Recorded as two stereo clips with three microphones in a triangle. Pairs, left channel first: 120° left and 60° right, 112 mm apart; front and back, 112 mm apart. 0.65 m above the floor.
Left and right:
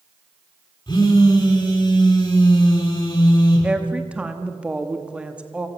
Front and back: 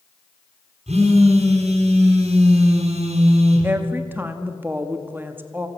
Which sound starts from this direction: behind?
A phone buzzing, at 0.9 s.